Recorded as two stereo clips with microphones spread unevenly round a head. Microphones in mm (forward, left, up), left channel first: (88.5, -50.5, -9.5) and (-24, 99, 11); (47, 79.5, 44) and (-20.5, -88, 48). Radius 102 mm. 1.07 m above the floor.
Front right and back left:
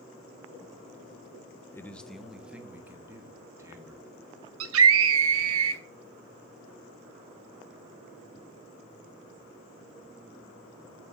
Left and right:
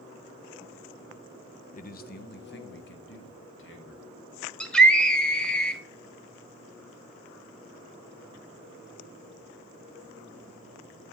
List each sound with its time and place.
1.7 s a man speaking: 20° left, 0.7 m; by 4.1 s 50° left, 2.5 m
4.6 s a scream: 155° left, 1.4 m